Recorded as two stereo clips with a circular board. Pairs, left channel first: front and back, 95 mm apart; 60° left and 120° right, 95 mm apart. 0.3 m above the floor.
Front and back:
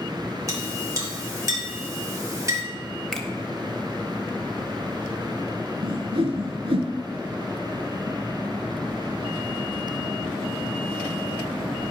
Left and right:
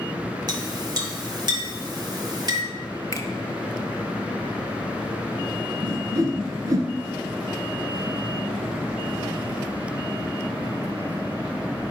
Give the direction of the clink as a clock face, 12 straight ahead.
5 o'clock.